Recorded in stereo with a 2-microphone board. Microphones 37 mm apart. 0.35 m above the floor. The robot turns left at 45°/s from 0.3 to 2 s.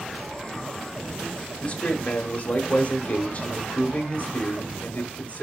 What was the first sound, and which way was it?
A man speaking, 30° left (ahead or behind).